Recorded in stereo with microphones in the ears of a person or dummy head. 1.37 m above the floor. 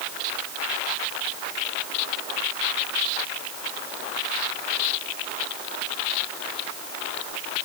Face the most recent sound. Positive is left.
No sound to turn to.